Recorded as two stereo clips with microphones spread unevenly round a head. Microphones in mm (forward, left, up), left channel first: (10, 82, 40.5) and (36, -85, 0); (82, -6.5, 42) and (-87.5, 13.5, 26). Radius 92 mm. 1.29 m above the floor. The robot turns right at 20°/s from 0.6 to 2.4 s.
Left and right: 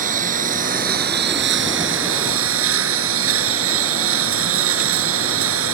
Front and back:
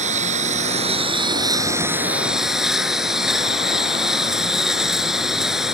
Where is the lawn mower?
135° right; by 5.8 s 100° right.